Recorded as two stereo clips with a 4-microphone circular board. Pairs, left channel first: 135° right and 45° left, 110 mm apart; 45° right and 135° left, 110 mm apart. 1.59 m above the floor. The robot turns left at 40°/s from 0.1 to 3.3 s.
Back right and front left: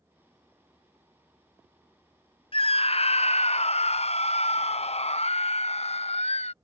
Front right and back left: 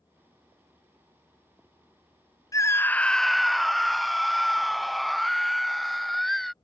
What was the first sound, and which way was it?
A scream, 105° right.